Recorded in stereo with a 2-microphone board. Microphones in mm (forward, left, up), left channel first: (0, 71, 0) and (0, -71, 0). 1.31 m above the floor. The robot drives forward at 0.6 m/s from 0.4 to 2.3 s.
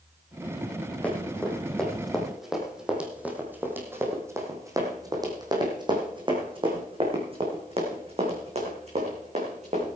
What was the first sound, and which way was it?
Running footsteps, 10° left (ahead or behind).